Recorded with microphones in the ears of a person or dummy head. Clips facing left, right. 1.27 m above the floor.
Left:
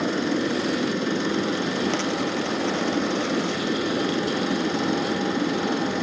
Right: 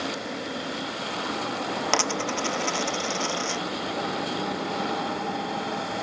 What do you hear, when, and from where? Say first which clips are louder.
0.0 s a machine running: left 9 dB; 75° left (ahead or behind)
1.9 s a dropped coin: left 3 dB; 75° right (ahead or behind)